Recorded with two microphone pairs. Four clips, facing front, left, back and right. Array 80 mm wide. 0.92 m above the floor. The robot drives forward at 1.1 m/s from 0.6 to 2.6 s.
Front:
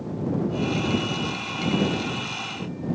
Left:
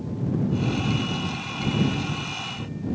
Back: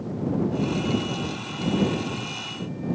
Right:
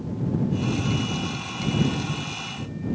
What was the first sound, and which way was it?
Only background noise.